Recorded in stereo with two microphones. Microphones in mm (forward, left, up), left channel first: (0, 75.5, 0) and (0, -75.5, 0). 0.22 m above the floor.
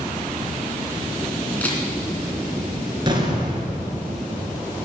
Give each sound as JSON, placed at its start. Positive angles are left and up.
{"t": 1.6, "sound": "a camera shutter", "side_deg": 10, "distance_m": 2.5}
{"t": 3.1, "sound": "an explosion", "side_deg": -30, "distance_m": 2.0}